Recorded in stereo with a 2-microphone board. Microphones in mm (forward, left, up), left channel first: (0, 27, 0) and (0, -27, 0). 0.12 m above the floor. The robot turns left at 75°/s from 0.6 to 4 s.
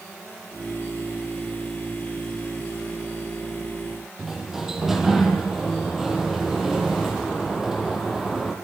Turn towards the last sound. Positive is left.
turn(degrees=-5)  # may be behind; listen again after turning